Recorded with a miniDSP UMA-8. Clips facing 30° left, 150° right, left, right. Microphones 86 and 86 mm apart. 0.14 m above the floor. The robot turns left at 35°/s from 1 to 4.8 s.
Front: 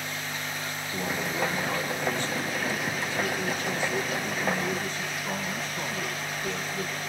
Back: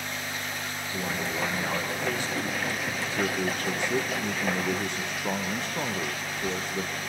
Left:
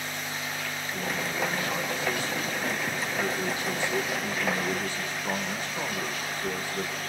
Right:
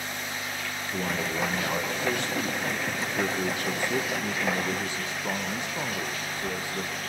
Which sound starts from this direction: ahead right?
A man speaking, at 0.9 s.